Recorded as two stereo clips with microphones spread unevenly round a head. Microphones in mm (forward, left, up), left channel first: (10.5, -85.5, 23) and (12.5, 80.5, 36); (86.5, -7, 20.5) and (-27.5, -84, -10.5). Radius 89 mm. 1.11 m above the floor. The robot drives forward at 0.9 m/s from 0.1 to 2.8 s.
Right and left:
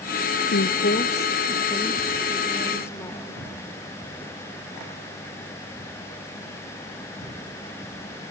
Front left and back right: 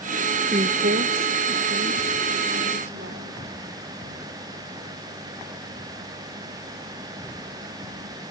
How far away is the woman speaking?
About 0.6 m.